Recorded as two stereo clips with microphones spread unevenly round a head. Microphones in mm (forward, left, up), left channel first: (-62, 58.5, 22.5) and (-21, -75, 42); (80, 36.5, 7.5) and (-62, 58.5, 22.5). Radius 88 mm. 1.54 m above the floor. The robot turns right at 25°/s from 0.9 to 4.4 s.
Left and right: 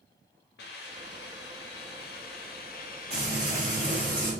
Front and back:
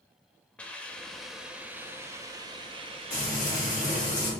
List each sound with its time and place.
0.6 s a hiss: 75° left, 0.5 m; by 4.1 s 155° left, 0.5 m
3.1 s frying: 60° right, 2.0 m; by 4.3 s 25° right, 2.0 m